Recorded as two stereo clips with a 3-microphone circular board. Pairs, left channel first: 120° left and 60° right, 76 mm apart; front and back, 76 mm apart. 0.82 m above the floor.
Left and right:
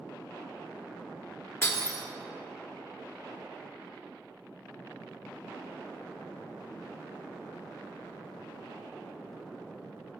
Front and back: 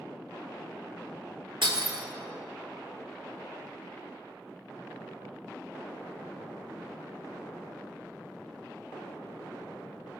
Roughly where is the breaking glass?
Behind.